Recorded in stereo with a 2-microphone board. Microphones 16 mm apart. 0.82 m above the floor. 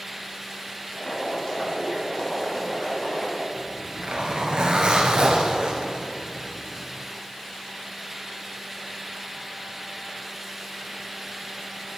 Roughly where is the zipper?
Right.